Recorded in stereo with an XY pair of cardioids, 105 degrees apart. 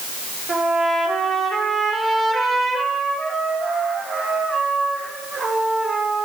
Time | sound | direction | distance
0.5 | a trumpet | 30° right | 4 m